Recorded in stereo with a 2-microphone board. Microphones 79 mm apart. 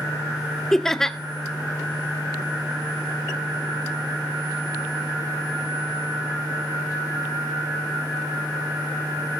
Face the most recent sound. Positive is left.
turn(degrees=5)  # may be behind; listen again after turning